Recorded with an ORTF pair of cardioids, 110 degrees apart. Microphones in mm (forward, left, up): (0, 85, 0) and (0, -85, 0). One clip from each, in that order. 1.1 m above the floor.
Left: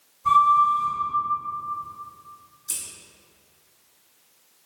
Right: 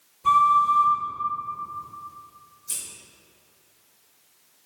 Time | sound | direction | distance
0.2 | a flute | 50° right | 1.8 m
2.7 | scissors | 15° left | 1.0 m